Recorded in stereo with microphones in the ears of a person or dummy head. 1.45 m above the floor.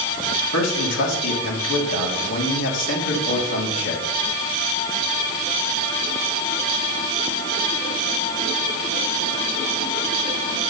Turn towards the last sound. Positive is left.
turn(degrees=80)